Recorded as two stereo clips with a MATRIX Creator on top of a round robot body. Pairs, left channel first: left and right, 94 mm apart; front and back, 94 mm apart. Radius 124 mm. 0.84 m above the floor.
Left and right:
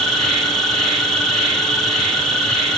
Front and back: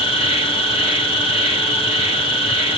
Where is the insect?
Straight ahead, 4 m.